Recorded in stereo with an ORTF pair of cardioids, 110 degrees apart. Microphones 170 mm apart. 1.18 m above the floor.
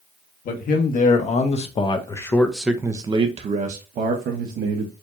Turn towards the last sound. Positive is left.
turn(degrees=-70)